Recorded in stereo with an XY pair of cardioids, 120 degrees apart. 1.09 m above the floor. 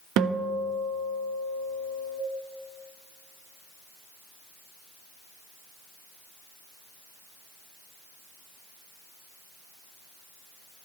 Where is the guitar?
70° right, 0.7 m.